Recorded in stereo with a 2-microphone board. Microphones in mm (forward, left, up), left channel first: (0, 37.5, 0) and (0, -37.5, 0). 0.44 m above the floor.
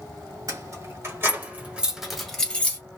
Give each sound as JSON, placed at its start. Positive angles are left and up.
{"t": 0.5, "sound": "keys jangling", "side_deg": -50, "distance_m": 1.7}